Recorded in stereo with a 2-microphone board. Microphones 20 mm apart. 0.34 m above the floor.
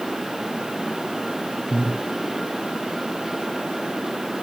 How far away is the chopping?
I don't hear chopping.